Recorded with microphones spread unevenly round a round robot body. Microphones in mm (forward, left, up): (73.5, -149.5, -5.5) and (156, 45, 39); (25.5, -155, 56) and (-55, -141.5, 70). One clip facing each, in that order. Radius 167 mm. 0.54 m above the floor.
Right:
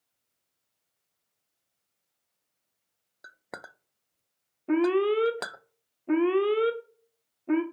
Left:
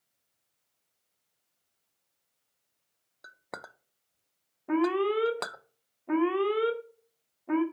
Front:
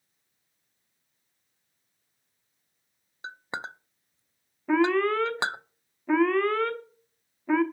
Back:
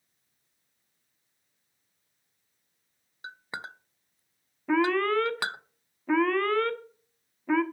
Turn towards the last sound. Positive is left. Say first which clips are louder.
# right 3 dB, front 2 dB
turn(degrees=-85)